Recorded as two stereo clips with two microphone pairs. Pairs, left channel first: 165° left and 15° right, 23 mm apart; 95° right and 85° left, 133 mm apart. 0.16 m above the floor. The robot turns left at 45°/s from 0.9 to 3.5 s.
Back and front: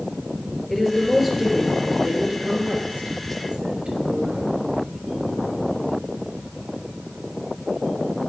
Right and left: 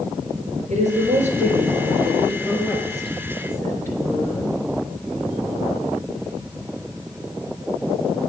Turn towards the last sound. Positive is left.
turn(degrees=-25)